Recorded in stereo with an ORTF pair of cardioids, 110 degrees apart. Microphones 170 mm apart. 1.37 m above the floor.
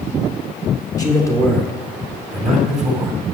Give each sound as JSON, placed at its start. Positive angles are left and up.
{"t": 1.0, "sound": "a man speaking", "azimuth_deg": 20, "distance_m": 3.5}